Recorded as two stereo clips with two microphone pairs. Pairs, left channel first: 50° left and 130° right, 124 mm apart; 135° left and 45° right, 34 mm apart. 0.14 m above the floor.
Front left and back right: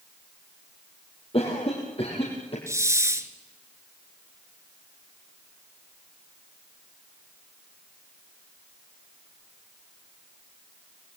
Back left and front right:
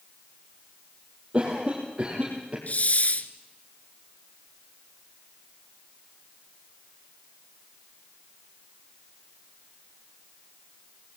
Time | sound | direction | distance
1.3 | a cough | 15° left | 4.5 m
2.7 | a hiss | 165° left | 1.1 m